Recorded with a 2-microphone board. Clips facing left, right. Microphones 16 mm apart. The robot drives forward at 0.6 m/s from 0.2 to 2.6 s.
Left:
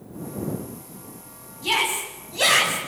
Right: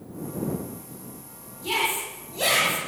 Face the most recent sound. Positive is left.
turn(degrees=35)  # may be behind; listen again after turning